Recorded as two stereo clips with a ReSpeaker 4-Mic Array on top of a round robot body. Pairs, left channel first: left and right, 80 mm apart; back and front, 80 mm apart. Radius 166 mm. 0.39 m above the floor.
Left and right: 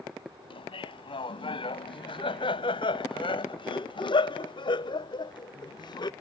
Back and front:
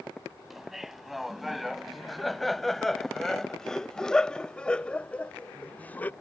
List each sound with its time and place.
0.5 s laughter: 85° left; by 6.1 s 110° left